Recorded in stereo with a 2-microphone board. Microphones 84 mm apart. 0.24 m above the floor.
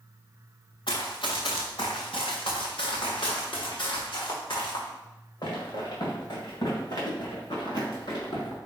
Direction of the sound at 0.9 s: 75° left (ahead or behind).